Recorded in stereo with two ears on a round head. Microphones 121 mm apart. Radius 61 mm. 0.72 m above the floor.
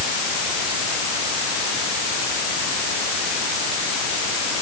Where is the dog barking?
No dog barking in this recording.